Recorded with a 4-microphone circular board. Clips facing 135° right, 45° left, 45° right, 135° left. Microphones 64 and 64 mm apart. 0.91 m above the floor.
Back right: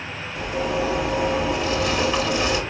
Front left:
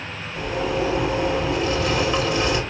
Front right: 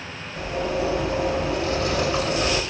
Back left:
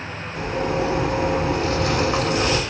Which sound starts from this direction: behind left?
A zipper, at 0.3 s.